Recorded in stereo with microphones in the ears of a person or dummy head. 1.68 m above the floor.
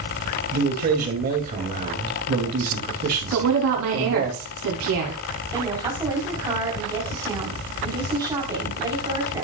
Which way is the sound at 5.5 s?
15° right (ahead or behind).